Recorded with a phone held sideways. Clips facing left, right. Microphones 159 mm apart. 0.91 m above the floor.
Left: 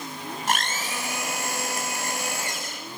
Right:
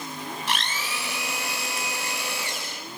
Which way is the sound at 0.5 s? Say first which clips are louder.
Left 5 dB; 50° left (ahead or behind).